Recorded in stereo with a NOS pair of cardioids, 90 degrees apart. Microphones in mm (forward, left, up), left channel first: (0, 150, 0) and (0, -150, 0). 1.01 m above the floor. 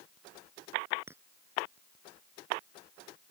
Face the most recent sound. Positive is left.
turn(degrees=-10)